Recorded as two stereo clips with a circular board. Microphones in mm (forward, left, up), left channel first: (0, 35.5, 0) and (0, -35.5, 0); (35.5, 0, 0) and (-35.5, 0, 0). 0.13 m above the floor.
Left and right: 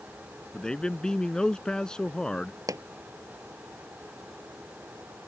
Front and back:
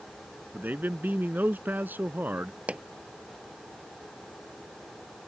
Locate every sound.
0.5 s a man speaking: 160° left
2.7 s a pop: 110° right